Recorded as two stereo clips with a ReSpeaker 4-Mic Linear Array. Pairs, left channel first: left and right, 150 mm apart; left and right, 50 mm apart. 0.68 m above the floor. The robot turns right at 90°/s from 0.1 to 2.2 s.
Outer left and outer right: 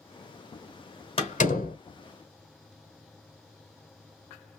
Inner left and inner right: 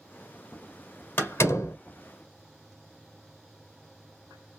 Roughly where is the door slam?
Left.